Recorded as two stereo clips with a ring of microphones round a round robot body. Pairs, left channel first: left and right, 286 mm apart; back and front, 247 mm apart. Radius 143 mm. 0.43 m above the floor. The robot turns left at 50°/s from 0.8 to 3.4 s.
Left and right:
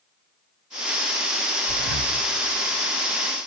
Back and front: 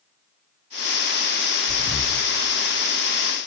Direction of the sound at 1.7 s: 85° right.